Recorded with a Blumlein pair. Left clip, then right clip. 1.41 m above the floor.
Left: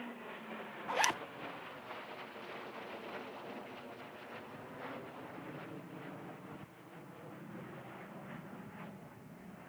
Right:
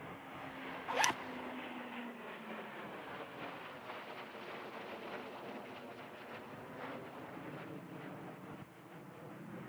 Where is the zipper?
Straight ahead.